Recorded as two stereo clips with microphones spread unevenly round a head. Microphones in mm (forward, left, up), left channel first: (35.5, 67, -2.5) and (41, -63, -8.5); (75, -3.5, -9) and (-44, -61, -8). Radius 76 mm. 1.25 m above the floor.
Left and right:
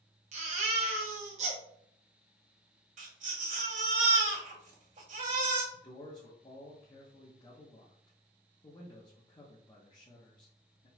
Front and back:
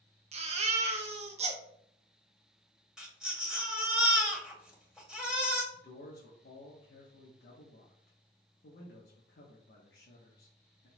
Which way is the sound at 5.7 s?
35° left.